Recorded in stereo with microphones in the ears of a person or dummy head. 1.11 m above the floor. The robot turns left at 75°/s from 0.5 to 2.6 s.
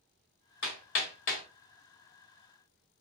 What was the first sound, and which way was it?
Hammering, 65° left (ahead or behind).